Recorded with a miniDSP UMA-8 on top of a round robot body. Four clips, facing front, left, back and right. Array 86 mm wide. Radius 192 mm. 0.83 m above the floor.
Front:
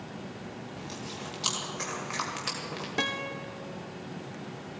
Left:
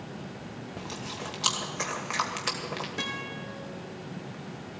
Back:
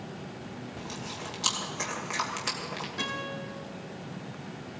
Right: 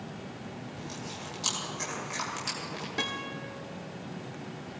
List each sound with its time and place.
0.8 s chewing: 95° left, 2.5 m
3.0 s a guitar: 15° right, 0.5 m